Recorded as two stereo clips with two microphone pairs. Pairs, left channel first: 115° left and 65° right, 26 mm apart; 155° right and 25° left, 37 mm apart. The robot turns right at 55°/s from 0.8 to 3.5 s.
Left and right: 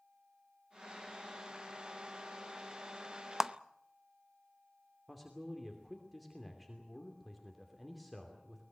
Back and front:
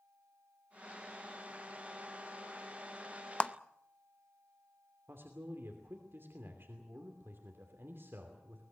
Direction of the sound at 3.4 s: 125° right.